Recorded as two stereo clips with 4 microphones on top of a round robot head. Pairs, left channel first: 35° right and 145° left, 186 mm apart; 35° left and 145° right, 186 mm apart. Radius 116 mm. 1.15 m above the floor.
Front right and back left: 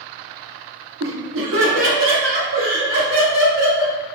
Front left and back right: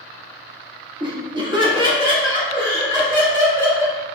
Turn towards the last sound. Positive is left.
turn(degrees=150)